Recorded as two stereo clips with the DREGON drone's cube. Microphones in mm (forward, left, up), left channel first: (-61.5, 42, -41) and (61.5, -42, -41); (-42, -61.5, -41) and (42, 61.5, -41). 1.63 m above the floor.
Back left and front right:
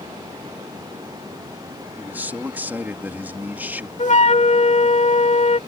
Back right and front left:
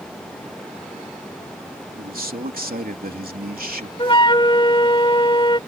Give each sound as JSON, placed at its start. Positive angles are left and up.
{"t": 2.0, "sound": "a man speaking", "azimuth_deg": 45}
{"t": 4.0, "sound": "a flute", "azimuth_deg": 180}